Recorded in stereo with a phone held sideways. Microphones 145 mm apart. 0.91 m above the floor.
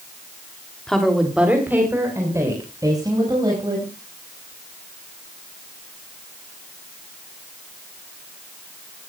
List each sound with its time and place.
0.9 s a woman speaking: 5° left (ahead or behind), 2.5 m; by 3.9 s 30° right (ahead or behind), 6.5 m